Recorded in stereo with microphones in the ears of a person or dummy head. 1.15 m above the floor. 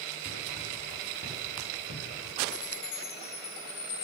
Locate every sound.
0.2 s running footsteps: 50° left (ahead or behind), 4.5 m
2.5 s a chime: 85° left, 7 m